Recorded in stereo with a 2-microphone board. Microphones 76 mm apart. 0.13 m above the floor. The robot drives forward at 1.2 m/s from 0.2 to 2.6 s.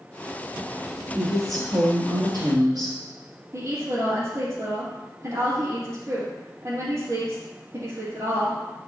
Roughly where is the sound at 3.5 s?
Right.